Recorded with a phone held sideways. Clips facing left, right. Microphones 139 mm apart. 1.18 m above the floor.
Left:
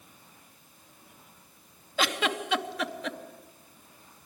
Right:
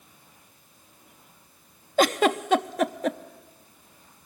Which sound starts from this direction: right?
A giggle, at 2.0 s.